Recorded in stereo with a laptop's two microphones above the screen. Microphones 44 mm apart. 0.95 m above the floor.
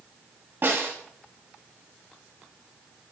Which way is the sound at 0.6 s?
50° right (ahead or behind).